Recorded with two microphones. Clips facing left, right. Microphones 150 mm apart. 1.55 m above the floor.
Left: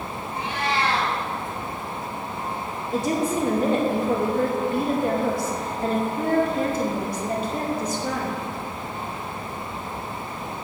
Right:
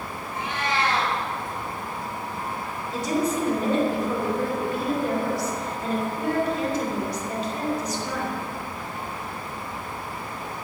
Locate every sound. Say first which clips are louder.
0.3 s a cat meowing: left 1 dB; 30° left (ahead or behind), 5.5 m
2.9 s a woman speaking: left 1 dB; 50° left (ahead or behind), 3 m